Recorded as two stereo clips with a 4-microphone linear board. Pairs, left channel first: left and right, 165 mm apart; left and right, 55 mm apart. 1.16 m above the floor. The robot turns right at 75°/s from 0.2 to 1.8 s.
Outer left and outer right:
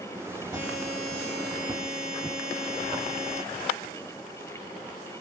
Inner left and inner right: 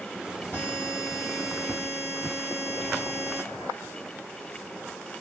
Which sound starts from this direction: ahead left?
A buzzer, at 0.5 s.